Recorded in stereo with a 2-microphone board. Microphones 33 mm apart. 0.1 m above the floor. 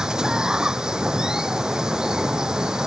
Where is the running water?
20° right (ahead or behind).